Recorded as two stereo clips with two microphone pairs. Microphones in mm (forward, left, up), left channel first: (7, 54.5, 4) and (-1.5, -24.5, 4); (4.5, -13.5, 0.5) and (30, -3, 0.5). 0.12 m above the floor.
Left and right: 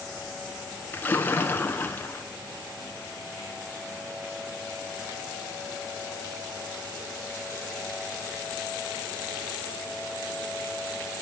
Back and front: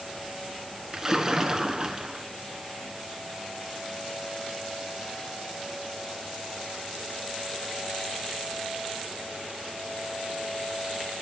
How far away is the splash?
About 0.9 m.